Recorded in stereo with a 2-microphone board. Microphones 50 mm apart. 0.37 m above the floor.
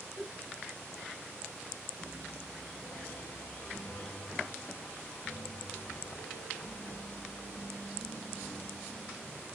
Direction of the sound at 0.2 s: 20° right (ahead or behind).